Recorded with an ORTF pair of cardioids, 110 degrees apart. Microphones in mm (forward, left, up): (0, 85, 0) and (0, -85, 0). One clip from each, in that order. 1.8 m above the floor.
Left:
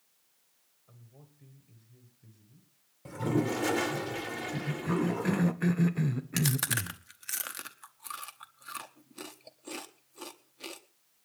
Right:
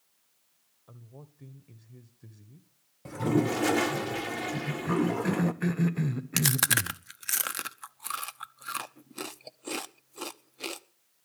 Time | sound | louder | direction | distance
0.9 | a man speaking | right 8 dB | 50° right | 1.5 m
3.0 | a toilet flushing | right 3 dB | 15° right | 1.0 m
4.5 | a cough | right 2 dB | 5° right | 1.0 m
6.4 | chewing | right 6 dB | 35° right | 0.8 m